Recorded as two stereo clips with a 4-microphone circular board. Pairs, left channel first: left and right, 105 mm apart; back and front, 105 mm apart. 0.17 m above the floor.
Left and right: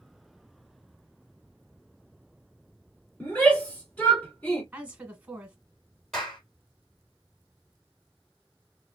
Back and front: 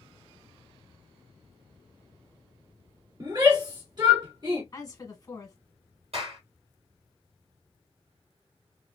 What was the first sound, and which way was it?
A shout, 20° left.